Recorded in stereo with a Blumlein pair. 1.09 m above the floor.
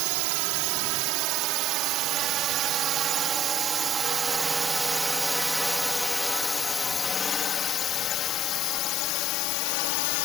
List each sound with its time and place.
0.0 s a drone: 45° right; by 10.2 s 45° left